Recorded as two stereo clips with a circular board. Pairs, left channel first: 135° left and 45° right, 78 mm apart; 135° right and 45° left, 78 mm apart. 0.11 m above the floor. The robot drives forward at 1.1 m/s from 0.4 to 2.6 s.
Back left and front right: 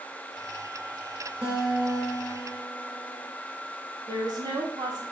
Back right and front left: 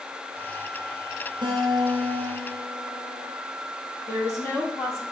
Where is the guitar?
25° left, 2.5 m; by 3.3 s 50° left, 1.3 m.